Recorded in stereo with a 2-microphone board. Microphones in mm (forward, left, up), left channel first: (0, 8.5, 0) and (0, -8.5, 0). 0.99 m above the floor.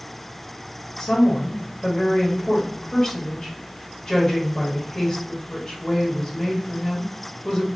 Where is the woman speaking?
35° left (ahead or behind), 1.4 m.